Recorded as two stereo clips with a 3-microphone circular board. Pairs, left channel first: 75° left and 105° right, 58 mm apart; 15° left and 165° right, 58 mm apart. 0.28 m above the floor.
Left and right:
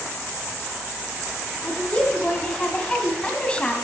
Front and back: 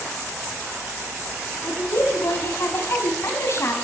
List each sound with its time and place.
1.6 s a woman speaking: 10° left, 2 m